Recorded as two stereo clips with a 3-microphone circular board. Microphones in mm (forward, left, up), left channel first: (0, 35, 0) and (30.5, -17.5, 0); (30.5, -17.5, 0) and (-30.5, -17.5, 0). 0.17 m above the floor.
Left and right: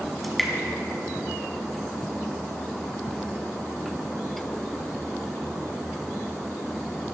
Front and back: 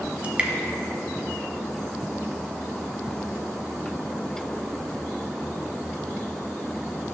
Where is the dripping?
160° right, 1.3 m.